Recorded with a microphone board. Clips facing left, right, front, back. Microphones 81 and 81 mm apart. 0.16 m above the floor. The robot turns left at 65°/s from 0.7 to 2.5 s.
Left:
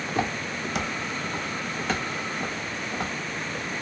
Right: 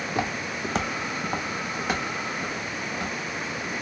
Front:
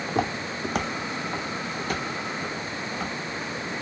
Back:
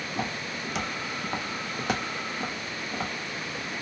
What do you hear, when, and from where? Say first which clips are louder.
0.1 s footsteps: left 2 dB, front 7 dB; 5° right, 0.7 m; by 3.7 s 130° left, 1.5 m